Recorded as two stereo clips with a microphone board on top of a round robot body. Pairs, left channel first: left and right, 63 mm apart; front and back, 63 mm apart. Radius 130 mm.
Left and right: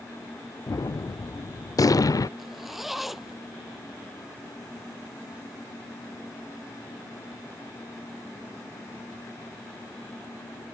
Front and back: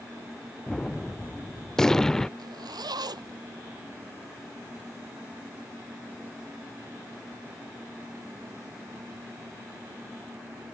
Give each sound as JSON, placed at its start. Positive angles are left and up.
{"t": 0.7, "sound": "a gunshot", "azimuth_deg": 80}
{"t": 2.4, "sound": "a zipper", "azimuth_deg": 180}